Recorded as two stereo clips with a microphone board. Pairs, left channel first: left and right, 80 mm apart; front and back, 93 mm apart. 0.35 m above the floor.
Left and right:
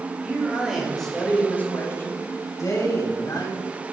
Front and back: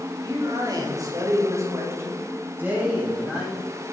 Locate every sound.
0.2 s a man speaking: 165° right, 2 m; by 3.6 s 100° left, 2.5 m